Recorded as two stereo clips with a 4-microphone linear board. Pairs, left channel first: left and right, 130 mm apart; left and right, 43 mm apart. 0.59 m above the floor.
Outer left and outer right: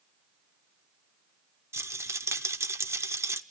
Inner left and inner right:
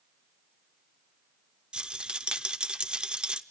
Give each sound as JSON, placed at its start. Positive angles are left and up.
{"t": 1.7, "sound": "a rattle", "side_deg": -20, "distance_m": 0.5}